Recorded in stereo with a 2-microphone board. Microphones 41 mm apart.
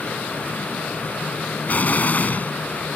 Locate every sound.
1.7 s an explosion: 40° left (ahead or behind)